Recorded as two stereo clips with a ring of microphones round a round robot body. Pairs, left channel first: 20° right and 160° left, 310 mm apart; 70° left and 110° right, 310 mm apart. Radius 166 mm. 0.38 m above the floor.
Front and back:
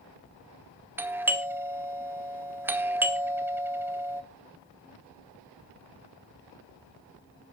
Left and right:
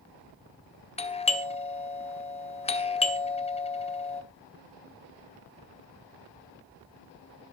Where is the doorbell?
85° left, 1.3 m.